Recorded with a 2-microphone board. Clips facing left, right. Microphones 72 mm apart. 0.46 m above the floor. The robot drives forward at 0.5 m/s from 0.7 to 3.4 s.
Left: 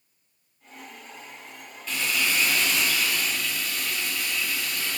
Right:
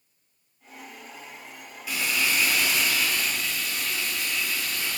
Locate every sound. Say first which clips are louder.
1.9 s frying: even; 10° right (ahead or behind), 0.6 m; by 5.0 s 5° right (ahead or behind), 1.2 m